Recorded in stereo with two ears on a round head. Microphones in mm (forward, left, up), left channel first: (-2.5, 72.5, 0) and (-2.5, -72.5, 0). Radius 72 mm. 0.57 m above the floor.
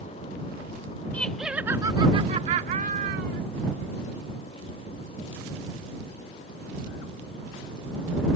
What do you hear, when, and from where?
1.1 s laughter: 10° left (ahead or behind); by 3.4 s 60° right (ahead or behind)